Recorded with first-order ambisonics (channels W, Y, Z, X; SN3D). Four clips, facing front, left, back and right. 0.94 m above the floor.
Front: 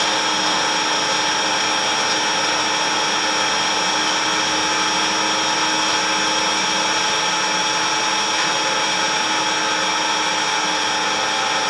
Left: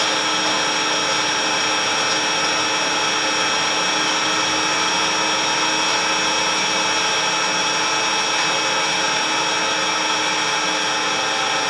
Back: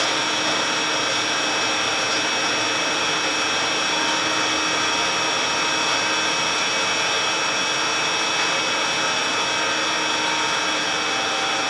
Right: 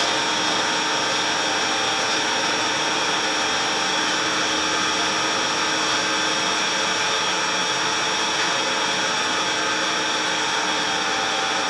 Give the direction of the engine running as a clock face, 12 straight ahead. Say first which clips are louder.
Left 2 dB, front 3 dB; 10 o'clock.